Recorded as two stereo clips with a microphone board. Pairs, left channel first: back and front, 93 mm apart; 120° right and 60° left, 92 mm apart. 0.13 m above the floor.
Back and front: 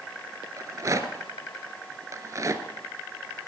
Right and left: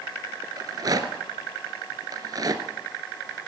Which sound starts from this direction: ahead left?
A rattle, at 0.6 s.